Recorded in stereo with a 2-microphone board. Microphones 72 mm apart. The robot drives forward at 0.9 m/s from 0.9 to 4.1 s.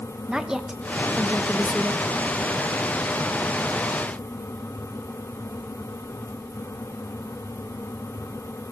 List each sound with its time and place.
0.3 s a woman speaking: 10° right (ahead or behind), 0.9 m